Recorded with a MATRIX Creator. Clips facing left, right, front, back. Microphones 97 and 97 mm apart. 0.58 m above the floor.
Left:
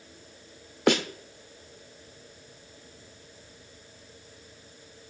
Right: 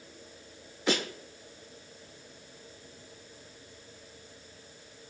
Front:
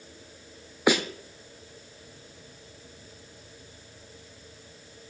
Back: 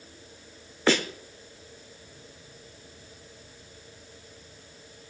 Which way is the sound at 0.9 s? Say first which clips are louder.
Left 6 dB, front 1 dB; 75° left.